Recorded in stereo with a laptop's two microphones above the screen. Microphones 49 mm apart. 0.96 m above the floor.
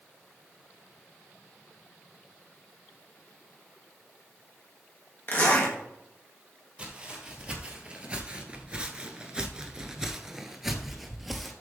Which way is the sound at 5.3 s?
40° left (ahead or behind).